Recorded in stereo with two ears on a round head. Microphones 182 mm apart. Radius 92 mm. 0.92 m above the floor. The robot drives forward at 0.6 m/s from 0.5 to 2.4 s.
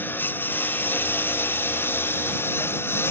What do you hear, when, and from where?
0.0 s a lawn mower: 10° left (ahead or behind)